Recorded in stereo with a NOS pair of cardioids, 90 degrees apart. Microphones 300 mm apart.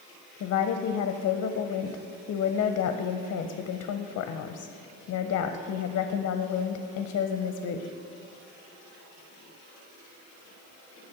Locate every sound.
0.4 s a woman speaking: 55° left, 0.5 m